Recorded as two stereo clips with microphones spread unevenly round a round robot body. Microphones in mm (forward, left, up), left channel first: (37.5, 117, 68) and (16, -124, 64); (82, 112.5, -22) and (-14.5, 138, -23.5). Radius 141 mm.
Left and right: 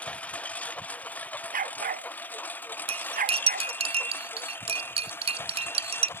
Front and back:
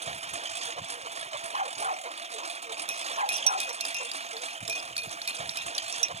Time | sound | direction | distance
0.0 | a lawn mower | 170° left | ?
1.5 | a dog barking | 155° right | ?
2.9 | cutlery clinking | 165° right | ?